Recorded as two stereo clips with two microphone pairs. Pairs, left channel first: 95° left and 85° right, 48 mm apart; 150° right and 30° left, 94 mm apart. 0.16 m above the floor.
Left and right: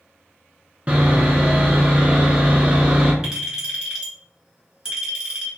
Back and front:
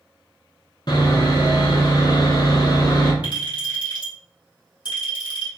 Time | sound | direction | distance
0.9 | sawing | 140° right | 0.8 m
3.2 | a clink | 155° right | 1.7 m